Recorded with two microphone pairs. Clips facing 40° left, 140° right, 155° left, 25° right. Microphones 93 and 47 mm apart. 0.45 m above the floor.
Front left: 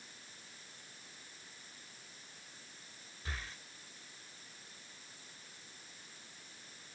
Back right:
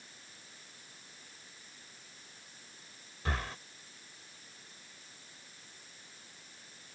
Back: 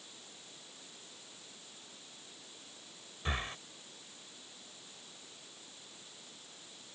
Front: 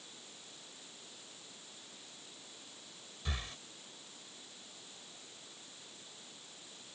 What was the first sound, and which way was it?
Breathing, 150° right.